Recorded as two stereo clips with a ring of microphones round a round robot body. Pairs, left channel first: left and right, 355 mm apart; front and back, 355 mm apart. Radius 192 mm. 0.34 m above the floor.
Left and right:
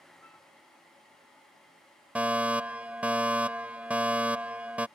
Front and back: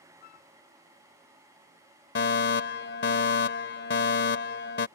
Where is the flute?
5° left.